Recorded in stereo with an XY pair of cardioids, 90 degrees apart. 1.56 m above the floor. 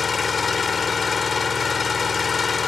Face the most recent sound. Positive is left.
turn(degrees=40)